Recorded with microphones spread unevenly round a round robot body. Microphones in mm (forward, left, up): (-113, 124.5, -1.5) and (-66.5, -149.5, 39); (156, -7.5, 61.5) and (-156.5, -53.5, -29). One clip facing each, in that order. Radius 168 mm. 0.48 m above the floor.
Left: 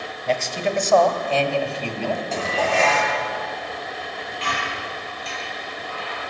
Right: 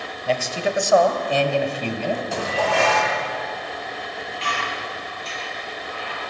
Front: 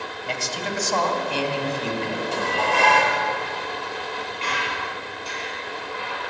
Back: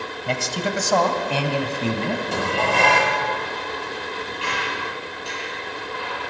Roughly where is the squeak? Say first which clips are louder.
Even, back 2 dB; left.